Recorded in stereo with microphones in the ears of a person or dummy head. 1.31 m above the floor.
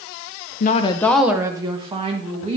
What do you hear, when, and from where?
0.6 s a woman speaking: 50° left (ahead or behind), 0.7 m; by 2.6 s 30° right (ahead or behind), 2 m